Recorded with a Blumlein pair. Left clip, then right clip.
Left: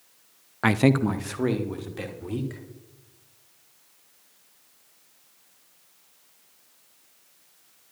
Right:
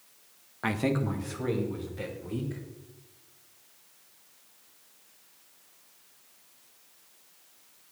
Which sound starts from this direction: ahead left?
A man speaking, at 0.6 s.